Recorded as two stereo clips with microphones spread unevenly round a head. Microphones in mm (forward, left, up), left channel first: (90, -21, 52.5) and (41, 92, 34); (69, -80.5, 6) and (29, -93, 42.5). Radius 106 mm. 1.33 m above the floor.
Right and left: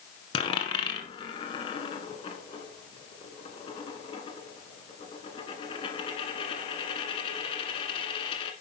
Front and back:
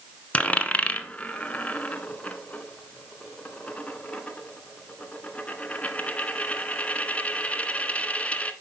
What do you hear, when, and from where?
0.3 s a dropped coin: 85° right, 1.6 m